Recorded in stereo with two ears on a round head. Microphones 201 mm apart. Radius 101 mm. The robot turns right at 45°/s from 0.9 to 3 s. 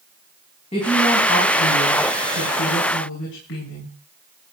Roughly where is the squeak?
No squeak in this recording.